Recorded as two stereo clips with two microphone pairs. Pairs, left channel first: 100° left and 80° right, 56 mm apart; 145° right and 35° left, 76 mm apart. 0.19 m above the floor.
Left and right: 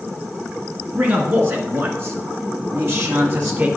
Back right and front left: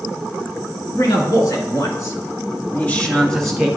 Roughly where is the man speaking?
Behind right.